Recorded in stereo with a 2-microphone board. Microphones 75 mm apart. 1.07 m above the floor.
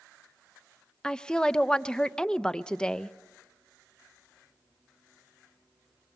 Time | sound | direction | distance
1.0 | a woman speaking | 10° left (ahead or behind) | 0.5 m